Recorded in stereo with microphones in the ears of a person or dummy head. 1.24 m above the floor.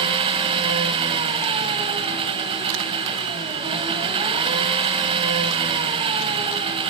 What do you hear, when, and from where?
0.0 s an engine running: 25° right (ahead or behind), 1.5 m